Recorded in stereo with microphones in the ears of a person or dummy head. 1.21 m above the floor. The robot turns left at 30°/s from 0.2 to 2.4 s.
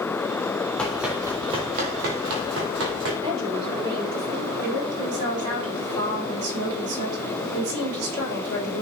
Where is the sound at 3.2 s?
25° right (ahead or behind), 3.5 m.